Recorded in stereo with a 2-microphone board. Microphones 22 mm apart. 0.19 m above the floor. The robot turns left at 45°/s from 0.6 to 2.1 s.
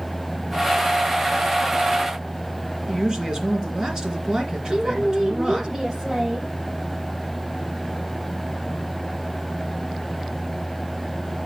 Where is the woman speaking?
20° right (ahead or behind), 5 m.